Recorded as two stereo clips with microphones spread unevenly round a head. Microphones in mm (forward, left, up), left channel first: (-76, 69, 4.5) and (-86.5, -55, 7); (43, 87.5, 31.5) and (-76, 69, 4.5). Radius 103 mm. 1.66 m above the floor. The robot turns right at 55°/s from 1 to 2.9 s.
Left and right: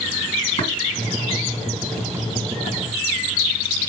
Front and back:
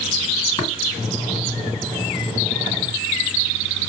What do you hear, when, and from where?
0.6 s tapping: 25° left, 2 m